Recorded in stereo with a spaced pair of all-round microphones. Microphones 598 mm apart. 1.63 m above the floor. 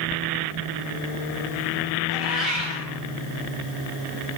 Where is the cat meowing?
50° right (ahead or behind), 3.5 m.